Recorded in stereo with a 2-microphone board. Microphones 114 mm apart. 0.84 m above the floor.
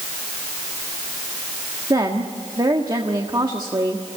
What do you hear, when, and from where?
1.9 s a woman speaking: 35° right (ahead or behind), 1.5 m